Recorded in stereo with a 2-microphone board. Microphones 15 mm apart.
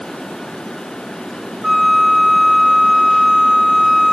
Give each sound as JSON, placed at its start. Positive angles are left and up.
{"t": 1.6, "sound": "a flute", "side_deg": -40, "distance_m": 1.8}